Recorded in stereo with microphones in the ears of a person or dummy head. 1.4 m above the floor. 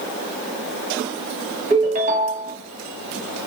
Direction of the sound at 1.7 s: 40° right (ahead or behind).